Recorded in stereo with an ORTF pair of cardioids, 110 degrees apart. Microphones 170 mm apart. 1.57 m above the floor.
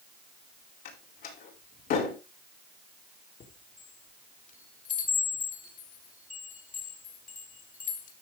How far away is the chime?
About 3.5 m.